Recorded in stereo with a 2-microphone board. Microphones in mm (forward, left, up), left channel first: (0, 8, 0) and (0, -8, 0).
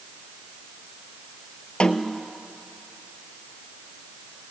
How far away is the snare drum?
About 1.1 m.